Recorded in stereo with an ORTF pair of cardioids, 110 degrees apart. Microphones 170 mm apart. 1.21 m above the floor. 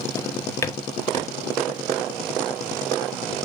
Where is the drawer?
15° left, 1.2 m.